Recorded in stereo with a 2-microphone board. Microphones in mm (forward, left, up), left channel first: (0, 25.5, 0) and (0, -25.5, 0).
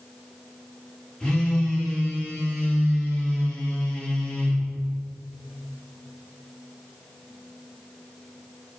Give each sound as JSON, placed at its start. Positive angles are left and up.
{"t": 1.2, "sound": "a phone buzzing", "side_deg": 15, "distance_m": 2.5}